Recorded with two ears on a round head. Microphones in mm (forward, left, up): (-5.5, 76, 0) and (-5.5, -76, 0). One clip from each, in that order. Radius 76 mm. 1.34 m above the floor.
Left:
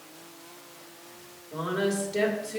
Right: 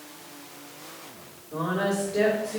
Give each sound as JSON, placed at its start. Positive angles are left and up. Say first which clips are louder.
{"t": 1.5, "sound": "a woman speaking", "louder": "right 2 dB", "side_deg": 85, "distance_m": 2.5}